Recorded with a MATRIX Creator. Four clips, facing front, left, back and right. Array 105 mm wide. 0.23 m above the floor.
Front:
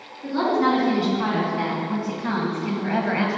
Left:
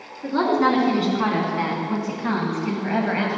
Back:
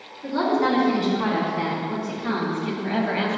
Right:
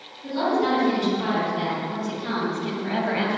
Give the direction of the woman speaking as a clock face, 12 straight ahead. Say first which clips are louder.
Left 3 dB, front 1 dB; 9 o'clock.